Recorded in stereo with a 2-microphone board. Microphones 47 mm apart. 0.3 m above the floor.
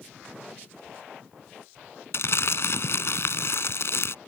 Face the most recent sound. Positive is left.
turn(degrees=60)  # may be behind; listen again after turning